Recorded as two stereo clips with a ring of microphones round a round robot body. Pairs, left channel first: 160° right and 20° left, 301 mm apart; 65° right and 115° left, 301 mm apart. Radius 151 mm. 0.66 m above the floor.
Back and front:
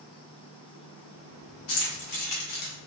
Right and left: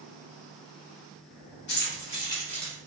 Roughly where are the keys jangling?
Behind right.